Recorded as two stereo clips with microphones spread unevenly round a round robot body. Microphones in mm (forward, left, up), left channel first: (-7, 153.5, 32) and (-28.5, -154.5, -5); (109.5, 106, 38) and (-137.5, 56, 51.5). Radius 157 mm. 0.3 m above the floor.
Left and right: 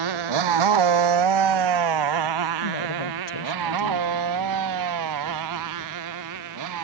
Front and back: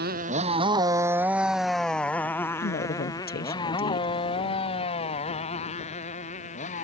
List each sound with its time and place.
0.0 s a motorcycle: 105° right; by 6.8 s 55° right
2.6 s a woman speaking: 65° left